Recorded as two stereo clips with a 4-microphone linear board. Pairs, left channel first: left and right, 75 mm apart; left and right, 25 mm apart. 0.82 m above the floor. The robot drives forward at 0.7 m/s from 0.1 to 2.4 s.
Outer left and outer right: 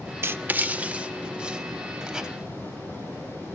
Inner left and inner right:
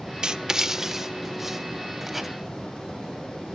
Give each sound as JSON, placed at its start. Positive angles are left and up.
{"t": 0.2, "sound": "writing", "side_deg": -30, "distance_m": 0.5}